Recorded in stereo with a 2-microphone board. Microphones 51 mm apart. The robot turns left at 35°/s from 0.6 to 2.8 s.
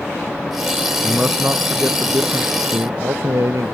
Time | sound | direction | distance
1.0 | a man speaking | 15° right | ?